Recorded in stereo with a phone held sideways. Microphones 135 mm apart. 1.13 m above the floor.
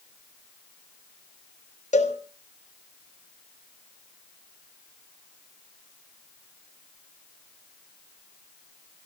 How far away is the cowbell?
About 2.5 m.